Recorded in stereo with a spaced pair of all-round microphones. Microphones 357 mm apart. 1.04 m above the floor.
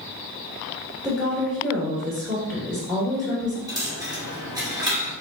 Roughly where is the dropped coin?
Centre.